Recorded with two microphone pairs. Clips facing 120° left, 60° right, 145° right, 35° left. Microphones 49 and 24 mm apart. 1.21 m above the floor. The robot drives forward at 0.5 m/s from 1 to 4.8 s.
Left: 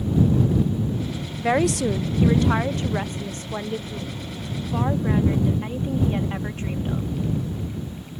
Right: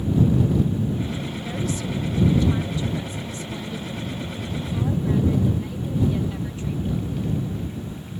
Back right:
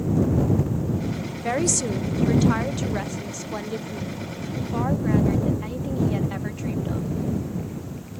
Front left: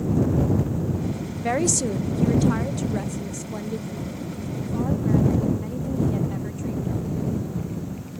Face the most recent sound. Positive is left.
turn(degrees=165)